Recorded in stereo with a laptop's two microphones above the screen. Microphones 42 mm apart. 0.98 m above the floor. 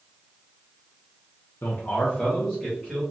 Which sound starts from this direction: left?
A man speaking, at 1.6 s.